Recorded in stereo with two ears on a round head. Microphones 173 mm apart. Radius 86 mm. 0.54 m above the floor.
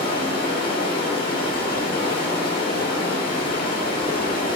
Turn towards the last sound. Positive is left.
turn(degrees=50)  # may be behind; listen again after turning